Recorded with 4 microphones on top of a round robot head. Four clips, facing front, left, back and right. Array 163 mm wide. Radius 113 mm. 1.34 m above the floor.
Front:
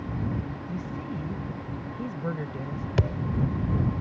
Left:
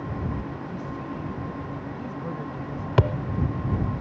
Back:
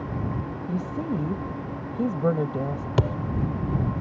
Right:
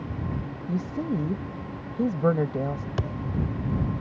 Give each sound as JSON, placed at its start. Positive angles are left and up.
{"t": 0.7, "sound": "a woman speaking", "azimuth_deg": -130}
{"t": 3.0, "sound": "a thud", "azimuth_deg": 115}